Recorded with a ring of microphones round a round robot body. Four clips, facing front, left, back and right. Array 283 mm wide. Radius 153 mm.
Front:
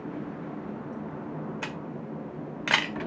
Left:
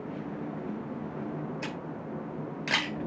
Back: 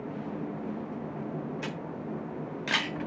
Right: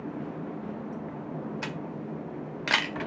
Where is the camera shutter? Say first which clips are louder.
Right 1 dB, even; 35° right, 1.6 m.